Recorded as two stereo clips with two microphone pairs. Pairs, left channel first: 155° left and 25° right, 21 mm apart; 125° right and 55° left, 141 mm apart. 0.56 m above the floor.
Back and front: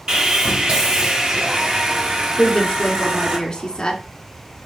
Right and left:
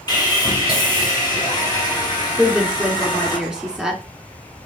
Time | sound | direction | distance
0.1 | sawing | 65° right | 2 m
2.4 | a woman speaking | 140° left | 1.7 m